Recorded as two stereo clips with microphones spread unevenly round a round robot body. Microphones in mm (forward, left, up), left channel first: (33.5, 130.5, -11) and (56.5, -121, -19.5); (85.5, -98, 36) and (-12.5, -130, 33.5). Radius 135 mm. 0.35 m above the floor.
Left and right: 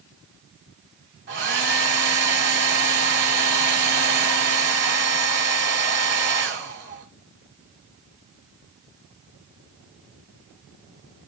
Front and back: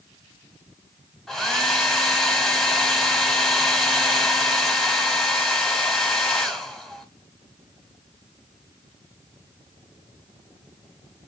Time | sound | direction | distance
1.3 | a hair dryer | 70° right | 1.6 m